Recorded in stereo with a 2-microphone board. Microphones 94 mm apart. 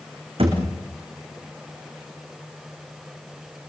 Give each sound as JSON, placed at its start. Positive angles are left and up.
{"t": 0.4, "sound": "a thud", "side_deg": -65, "distance_m": 6.5}